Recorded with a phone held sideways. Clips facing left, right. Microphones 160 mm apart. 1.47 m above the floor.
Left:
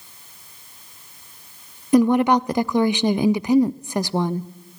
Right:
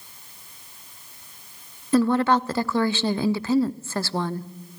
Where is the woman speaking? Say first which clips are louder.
Left 4 dB; 15° left (ahead or behind), 0.6 m.